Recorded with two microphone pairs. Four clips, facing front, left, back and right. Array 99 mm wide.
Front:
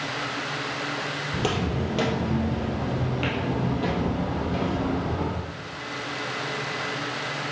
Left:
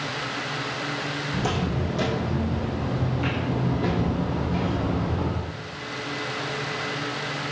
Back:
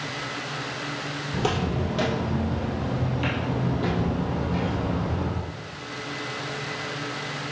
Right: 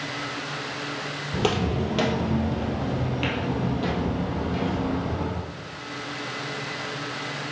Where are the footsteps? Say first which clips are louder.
Right 4 dB, back 1 dB; 85° right, 1.9 m; by 5.4 s 5° right, 3 m.